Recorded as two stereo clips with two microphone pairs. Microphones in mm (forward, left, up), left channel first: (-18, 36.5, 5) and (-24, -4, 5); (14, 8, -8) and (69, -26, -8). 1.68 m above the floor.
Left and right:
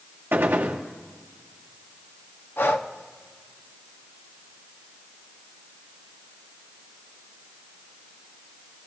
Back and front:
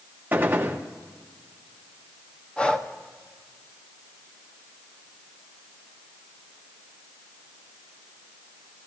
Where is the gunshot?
85° right, 1.2 m.